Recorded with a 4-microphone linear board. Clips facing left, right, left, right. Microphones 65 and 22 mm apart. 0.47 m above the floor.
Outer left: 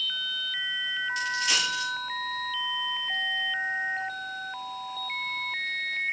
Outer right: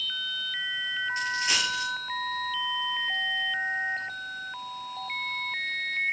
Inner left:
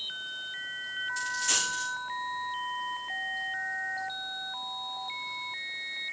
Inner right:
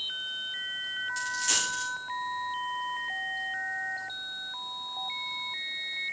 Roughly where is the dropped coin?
Right.